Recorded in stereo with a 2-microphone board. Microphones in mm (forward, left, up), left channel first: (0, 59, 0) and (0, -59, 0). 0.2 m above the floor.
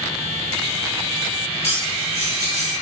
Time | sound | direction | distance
1.6 | cutlery clinking | 25° left (ahead or behind) | 1.6 m